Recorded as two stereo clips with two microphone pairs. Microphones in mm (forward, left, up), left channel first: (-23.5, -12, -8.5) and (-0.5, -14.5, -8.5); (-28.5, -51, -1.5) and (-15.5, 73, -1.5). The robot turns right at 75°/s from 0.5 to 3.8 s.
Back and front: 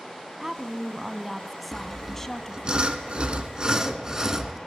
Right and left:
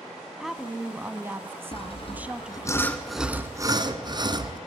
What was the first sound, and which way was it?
A woman speaking, 5° left.